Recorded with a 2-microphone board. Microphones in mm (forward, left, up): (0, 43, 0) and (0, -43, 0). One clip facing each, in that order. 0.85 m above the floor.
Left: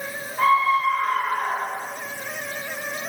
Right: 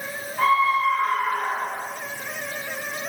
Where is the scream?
Centre (ahead or behind), 9.5 m.